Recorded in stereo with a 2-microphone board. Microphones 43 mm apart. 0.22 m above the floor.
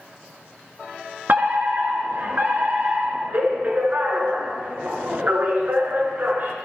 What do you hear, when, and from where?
1.3 s a fire alarm: 50° right (ahead or behind), 5 m